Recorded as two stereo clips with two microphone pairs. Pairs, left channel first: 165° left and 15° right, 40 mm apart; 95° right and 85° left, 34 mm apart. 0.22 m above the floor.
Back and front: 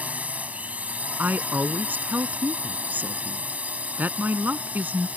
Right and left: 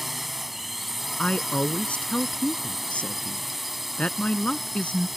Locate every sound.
0.0 s a drone: 5° left
1.2 s a woman speaking: 45° right